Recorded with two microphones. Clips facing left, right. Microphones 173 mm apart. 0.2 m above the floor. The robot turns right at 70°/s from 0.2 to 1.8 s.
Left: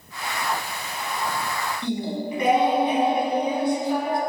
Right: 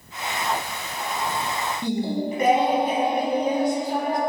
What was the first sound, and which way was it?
Singing, 45° right (ahead or behind).